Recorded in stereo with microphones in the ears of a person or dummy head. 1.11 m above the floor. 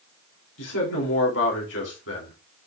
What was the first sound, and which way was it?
A man speaking, 60° left (ahead or behind).